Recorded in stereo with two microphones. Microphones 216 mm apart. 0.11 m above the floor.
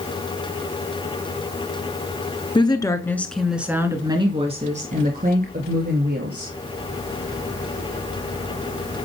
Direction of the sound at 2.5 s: 20° left (ahead or behind).